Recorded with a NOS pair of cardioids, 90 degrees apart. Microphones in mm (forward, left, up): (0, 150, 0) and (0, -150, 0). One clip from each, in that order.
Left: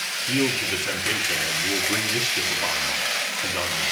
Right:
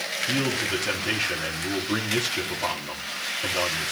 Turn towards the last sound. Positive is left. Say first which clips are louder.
# left 3 dB
turn(degrees=-5)